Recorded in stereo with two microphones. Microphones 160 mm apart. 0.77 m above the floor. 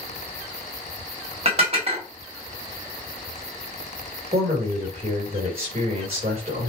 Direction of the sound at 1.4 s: 45° right (ahead or behind).